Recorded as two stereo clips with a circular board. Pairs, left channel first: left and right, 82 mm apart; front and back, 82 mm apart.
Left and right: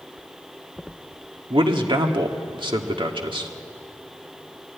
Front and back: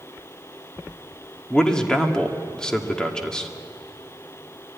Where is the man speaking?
80° right, 1.9 m.